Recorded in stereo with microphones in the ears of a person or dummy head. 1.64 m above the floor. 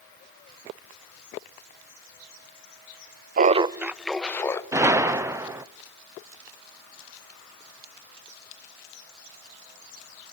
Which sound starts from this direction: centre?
A gunshot, at 4.7 s.